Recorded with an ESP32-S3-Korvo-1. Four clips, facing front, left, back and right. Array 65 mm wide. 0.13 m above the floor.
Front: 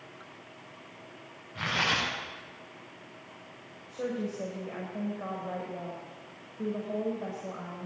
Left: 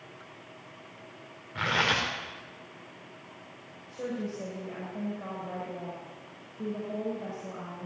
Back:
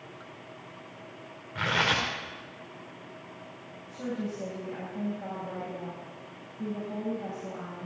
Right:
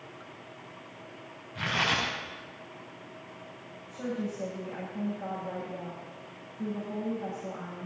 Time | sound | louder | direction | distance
1.6 | tearing paper | left 2 dB, back 3 dB | 115° left | 5.5 m
3.9 | a woman speaking | even, front 1 dB | 20° left | 7.5 m